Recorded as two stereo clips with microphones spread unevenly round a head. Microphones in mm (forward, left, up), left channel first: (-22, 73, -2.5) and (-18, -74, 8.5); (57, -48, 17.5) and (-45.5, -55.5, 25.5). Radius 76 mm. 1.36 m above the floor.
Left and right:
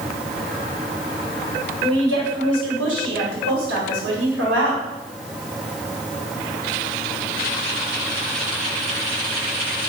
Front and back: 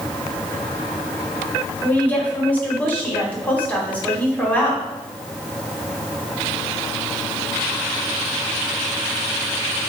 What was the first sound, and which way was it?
A woman speaking, 70° right.